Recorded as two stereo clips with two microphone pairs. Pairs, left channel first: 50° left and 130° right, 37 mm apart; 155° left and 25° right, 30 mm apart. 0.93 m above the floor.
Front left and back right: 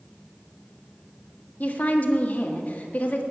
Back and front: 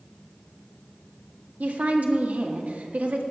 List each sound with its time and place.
1.6 s a woman speaking: 5° left, 1.7 m